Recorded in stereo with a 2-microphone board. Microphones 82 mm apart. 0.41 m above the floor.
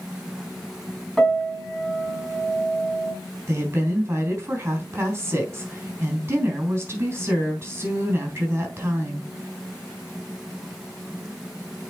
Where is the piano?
Centre (ahead or behind), 3.5 m.